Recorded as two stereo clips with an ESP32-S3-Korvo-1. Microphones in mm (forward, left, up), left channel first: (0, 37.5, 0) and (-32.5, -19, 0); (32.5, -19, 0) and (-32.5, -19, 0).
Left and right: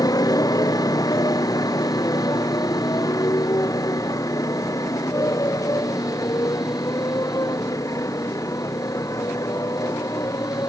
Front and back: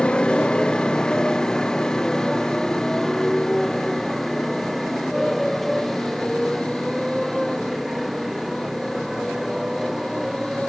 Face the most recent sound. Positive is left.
turn(degrees=95)